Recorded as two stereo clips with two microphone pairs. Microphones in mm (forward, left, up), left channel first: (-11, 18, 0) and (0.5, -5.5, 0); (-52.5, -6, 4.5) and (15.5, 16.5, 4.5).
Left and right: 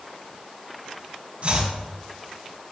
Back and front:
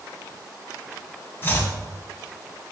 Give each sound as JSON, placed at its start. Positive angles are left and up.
{"t": 1.4, "sound": "chopping", "azimuth_deg": -105, "distance_m": 1.7}